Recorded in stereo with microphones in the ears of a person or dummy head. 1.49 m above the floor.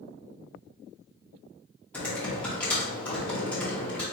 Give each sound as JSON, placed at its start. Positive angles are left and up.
{"t": 1.9, "sound": "typing on a keyboard", "side_deg": 10, "distance_m": 1.7}